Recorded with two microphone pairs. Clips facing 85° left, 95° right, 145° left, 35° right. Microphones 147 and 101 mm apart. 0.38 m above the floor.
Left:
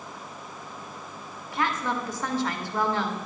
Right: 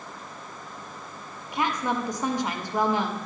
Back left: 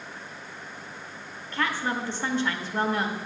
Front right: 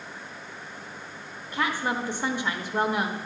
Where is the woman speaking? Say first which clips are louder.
Right 1 dB, front right 1 dB; 70° right, 0.8 m.